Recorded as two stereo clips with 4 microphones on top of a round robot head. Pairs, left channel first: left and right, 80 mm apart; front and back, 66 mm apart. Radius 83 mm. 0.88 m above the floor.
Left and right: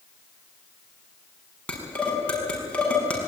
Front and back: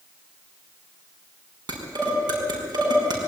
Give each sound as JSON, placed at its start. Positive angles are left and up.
{"t": 1.7, "sound": "dishes clattering", "azimuth_deg": 165, "distance_m": 5.5}